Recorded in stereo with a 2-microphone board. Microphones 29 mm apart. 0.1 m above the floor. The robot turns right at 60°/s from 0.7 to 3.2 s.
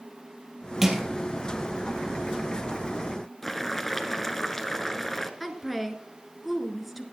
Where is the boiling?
10° left (ahead or behind), 1.0 m.